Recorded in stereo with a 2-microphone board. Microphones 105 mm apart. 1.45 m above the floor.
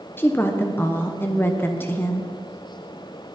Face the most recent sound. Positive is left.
turn(degrees=20)  # may be behind; listen again after turning